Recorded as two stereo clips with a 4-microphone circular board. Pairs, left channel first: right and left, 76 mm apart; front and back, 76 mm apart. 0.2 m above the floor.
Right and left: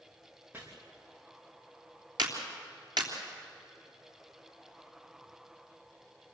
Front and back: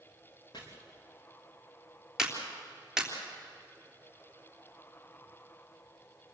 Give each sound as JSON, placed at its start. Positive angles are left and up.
{"t": 0.5, "sound": "chopping", "azimuth_deg": 25, "distance_m": 5.0}
{"t": 2.2, "sound": "a clap", "azimuth_deg": 95, "distance_m": 3.5}